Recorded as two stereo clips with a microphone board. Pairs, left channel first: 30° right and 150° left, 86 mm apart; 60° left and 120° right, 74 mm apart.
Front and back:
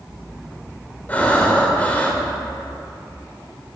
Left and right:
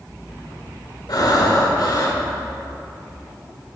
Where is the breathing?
40° left, 1.4 m.